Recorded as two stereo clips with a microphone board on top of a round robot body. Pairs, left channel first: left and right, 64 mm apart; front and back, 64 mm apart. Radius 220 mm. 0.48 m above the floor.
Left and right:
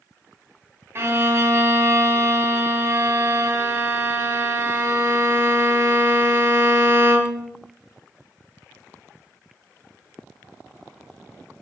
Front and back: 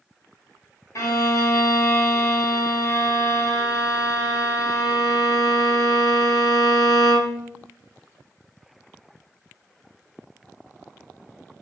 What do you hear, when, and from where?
0.9 s a violin: 40° right, 2.5 m